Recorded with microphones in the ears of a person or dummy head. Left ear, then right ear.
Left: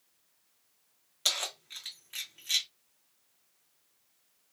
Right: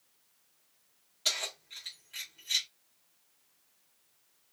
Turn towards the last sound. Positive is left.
turn(degrees=45)  # may be behind; listen again after turning